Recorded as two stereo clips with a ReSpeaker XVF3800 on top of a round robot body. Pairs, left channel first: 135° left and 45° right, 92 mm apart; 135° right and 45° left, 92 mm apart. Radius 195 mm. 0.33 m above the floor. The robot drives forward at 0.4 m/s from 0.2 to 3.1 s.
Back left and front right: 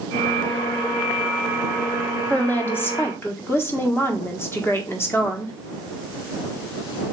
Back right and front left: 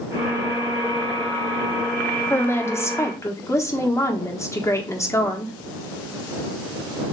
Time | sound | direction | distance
2.3 | a woman speaking | 170° right | 1.2 m